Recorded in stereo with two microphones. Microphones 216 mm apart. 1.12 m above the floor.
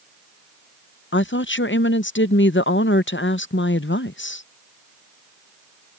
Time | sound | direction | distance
1.1 | a woman speaking | 60° left (ahead or behind) | ?